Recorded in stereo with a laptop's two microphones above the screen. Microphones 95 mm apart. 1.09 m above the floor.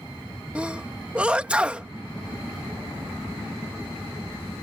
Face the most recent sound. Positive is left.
turn(degrees=-15)  # may be behind; listen again after turning